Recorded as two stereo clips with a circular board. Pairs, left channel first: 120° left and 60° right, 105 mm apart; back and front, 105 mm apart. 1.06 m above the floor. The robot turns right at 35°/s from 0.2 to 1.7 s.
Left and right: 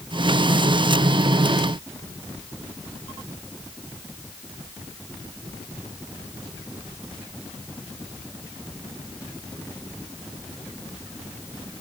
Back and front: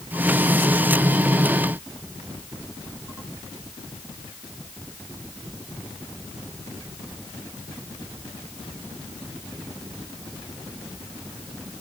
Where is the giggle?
I don't hear a giggle.